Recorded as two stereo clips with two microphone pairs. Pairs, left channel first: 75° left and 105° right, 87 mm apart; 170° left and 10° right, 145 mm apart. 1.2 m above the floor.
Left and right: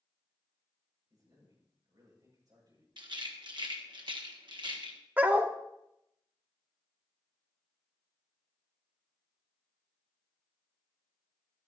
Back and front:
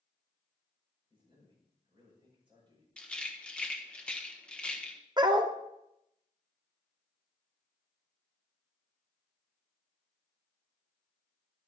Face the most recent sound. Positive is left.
turn(degrees=-45)